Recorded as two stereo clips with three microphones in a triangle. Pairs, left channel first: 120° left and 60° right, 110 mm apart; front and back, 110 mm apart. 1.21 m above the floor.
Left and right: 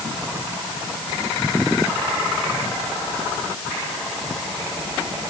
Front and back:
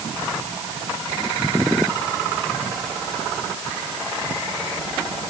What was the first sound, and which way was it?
Only background noise.